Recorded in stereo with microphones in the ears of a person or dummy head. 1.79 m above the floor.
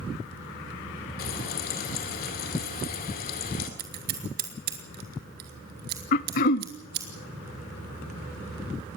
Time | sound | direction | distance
1.2 | frying | 50° left (ahead or behind) | 2.5 m
3.8 | scissors | 50° right (ahead or behind) | 2.5 m
6.1 | throat clearing | 45° left (ahead or behind) | 0.6 m